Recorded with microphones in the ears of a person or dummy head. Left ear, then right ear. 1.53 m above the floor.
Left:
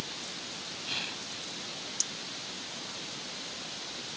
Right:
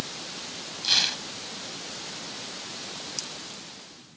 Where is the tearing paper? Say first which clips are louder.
Right 13 dB; 40° right (ahead or behind).